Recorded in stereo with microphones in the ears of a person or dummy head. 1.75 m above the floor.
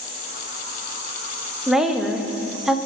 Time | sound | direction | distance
1.7 | a woman speaking | 5° right (ahead or behind) | 1.1 m